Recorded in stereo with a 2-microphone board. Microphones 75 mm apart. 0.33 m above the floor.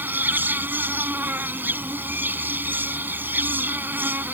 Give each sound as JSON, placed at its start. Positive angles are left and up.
{"t": 0.0, "sound": "an insect", "side_deg": -25}